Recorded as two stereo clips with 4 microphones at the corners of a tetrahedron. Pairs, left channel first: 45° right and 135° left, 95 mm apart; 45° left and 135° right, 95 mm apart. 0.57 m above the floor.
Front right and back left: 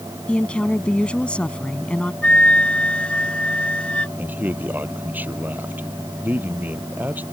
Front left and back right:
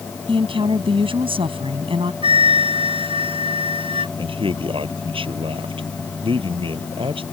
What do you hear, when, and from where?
0.3 s a woman speaking: 125° right
2.2 s a flute: 125° right
4.2 s a man speaking: 155° right